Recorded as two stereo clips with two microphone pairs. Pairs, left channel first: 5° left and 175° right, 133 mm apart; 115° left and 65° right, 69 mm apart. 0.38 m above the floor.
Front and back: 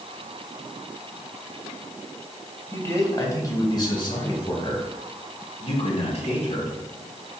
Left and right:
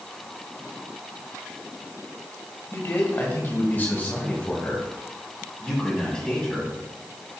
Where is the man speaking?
70° left, 2.5 m; by 6.7 s 30° left, 4 m.